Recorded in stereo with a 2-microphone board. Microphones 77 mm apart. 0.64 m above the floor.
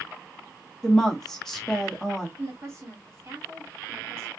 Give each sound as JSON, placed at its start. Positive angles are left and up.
{"t": 0.8, "sound": "a woman speaking", "side_deg": 5, "distance_m": 1.1}
{"t": 2.4, "sound": "a woman speaking", "side_deg": -35, "distance_m": 1.8}